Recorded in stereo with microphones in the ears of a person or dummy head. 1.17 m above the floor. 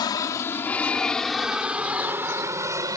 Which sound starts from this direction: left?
An aircraft, at 0.0 s.